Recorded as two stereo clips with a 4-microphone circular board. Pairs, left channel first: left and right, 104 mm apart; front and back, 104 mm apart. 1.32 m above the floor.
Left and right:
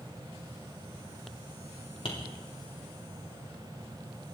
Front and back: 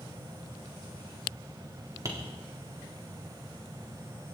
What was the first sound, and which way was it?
Tapping, 120° left.